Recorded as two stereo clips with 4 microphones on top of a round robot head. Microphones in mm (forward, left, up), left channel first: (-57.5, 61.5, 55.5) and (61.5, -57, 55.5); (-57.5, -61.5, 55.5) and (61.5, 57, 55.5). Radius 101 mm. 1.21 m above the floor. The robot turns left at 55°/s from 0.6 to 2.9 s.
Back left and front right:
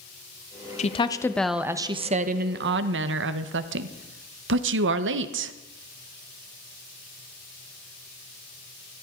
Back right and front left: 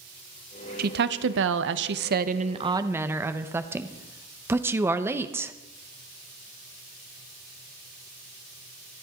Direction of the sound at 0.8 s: 85° left.